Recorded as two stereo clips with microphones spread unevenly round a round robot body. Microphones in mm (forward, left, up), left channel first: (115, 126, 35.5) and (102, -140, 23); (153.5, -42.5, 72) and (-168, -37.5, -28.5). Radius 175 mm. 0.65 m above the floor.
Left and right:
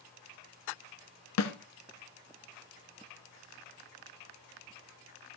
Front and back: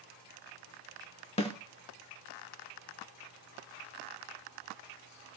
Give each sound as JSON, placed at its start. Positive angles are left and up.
{"t": 1.4, "sound": "a snare drum", "azimuth_deg": 65, "distance_m": 1.6}